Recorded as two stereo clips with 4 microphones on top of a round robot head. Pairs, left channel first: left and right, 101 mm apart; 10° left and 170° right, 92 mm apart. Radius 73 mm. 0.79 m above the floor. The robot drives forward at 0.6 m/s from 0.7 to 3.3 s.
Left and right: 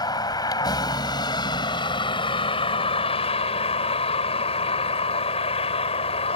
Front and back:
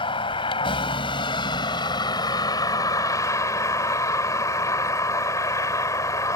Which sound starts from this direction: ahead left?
A vehicle, at 0.0 s.